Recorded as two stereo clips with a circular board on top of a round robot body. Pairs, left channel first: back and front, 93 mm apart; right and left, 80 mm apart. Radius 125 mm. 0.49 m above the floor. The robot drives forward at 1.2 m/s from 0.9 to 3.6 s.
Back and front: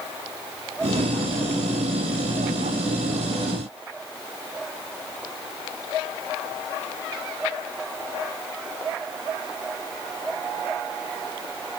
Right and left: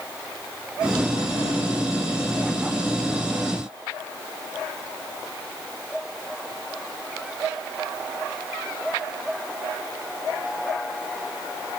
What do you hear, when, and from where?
Only background noise.